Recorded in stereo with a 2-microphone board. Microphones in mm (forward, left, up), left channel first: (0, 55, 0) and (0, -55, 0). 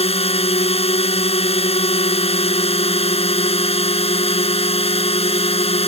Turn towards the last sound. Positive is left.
turn(degrees=70)  # may be behind; listen again after turning